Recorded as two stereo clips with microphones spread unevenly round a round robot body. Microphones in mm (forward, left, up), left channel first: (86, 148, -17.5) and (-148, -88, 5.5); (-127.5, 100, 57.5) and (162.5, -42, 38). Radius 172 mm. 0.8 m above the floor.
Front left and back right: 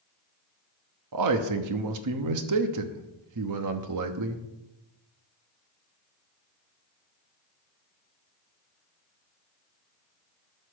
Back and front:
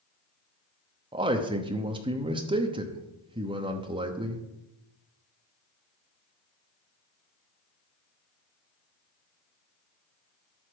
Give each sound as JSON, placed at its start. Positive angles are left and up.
{"t": 1.1, "sound": "a man speaking", "azimuth_deg": -100, "distance_m": 1.0}